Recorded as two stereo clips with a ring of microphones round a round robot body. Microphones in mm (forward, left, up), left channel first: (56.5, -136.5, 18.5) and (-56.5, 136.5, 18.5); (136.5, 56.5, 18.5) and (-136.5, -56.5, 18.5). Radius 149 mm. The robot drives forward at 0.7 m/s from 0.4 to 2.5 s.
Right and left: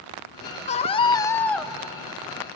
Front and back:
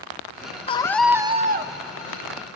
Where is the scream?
30° right, 0.8 m; by 1.7 s 160° right, 0.8 m.